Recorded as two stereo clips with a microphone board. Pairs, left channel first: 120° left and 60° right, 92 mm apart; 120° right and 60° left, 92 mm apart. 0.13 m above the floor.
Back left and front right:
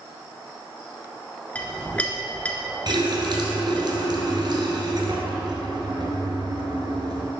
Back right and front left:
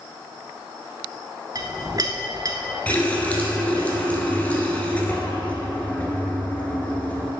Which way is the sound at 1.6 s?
50° left.